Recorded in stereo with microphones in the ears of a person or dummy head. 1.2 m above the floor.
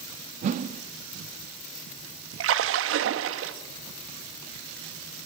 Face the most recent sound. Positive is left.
turn(degrees=-80)